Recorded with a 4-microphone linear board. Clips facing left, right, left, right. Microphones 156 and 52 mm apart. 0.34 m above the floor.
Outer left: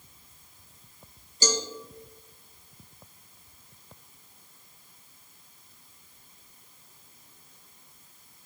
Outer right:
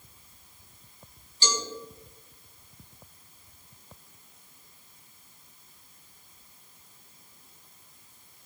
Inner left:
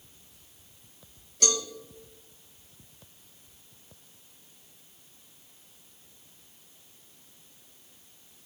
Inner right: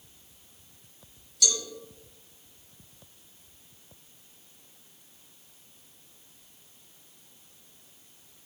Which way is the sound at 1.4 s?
45° left (ahead or behind).